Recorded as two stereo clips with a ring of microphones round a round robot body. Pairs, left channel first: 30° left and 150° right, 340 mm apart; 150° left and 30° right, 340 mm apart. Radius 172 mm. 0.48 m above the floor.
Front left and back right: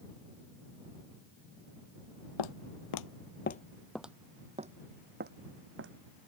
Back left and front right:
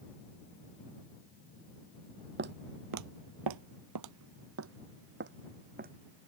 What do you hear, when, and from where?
2.4 s footsteps: 30° left; by 5.9 s 95° right